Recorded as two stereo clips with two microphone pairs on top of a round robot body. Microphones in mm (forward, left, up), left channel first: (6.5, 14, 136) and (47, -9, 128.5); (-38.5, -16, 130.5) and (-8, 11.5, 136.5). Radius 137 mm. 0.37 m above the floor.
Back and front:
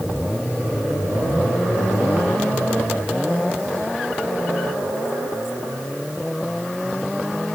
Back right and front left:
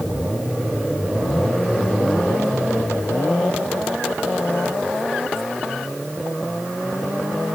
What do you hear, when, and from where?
Only background noise.